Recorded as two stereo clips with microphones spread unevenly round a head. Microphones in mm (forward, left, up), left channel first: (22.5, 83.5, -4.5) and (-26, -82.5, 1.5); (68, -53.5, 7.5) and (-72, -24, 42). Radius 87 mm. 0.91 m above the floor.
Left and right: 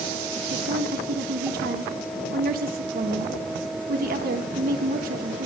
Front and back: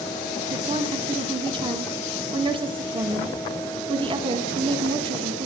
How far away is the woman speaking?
About 1.3 m.